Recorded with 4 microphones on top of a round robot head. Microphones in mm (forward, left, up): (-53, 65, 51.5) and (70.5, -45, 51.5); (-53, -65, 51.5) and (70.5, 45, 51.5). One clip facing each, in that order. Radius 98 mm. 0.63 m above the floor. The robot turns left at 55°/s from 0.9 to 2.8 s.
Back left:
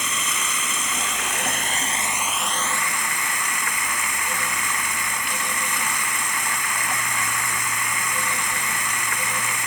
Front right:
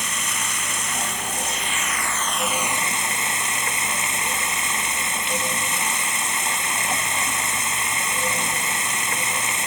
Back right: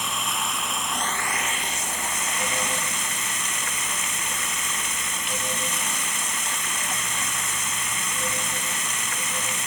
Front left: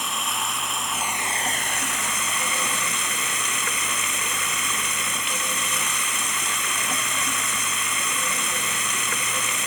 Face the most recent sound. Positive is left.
turn(degrees=25)